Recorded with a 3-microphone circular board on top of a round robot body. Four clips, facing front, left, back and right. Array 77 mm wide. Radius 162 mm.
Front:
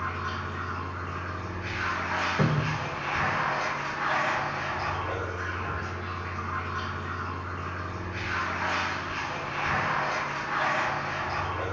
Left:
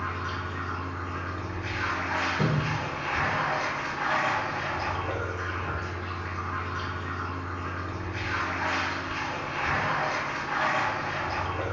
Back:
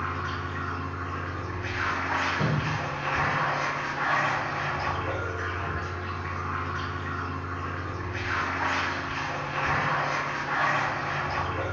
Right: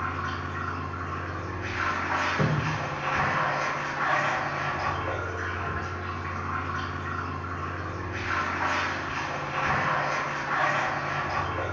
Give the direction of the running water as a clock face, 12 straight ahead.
4 o'clock.